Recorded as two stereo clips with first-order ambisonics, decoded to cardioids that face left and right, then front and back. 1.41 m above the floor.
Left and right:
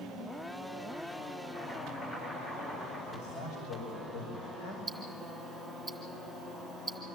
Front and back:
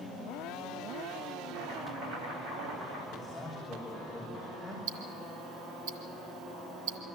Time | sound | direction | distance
1.5 | chopping | 160° left | 9 m
3.1 | a man speaking | 90° left | 5.5 m
4.9 | ticking | 170° right | 3 m